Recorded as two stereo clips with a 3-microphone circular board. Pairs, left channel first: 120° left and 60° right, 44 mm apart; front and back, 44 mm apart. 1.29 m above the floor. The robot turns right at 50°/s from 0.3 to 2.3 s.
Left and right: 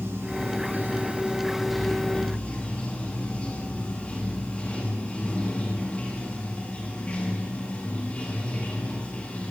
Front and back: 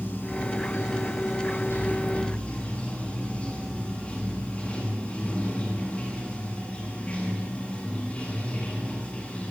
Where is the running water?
40° right, 9 m; by 9.5 s 60° left, 9 m.